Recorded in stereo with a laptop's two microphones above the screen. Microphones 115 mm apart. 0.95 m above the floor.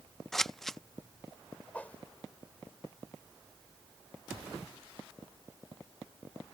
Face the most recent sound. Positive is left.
turn(degrees=15)  # may be behind; listen again after turning